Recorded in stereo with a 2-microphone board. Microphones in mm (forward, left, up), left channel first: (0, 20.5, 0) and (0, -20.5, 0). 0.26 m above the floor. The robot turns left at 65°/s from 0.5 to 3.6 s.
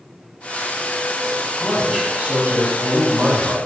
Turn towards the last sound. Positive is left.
turn(degrees=-135)